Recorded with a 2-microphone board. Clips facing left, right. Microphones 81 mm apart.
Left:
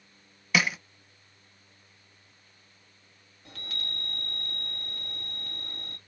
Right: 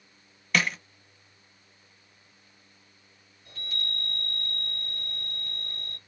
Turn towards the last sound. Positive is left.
turn(degrees=75)  # may be behind; listen again after turning